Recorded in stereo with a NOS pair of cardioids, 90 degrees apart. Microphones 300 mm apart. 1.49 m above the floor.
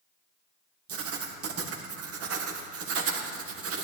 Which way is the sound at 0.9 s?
55° right.